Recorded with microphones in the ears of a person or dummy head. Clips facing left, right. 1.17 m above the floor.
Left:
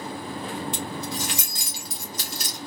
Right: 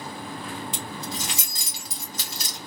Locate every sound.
0.7 s keys jangling: 65° right (ahead or behind), 2 m